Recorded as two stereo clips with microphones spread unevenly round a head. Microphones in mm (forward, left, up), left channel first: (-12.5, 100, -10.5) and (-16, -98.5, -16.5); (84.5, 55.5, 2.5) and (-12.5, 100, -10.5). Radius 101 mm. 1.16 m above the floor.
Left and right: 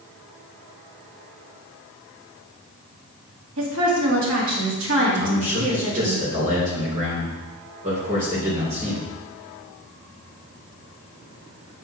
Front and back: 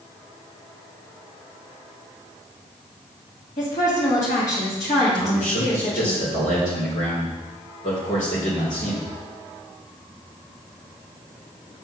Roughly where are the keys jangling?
No keys jangling in this recording.